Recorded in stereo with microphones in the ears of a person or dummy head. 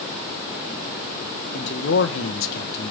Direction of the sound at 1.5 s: 55° left (ahead or behind).